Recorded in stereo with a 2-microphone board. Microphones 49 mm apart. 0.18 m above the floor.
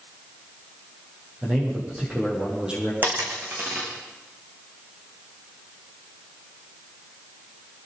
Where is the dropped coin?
40° right (ahead or behind), 5.5 m.